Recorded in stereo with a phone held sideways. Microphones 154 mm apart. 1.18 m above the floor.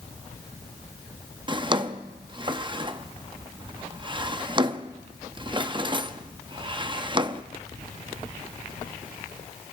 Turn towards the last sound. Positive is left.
turn(degrees=-30)  # may be behind; listen again after turning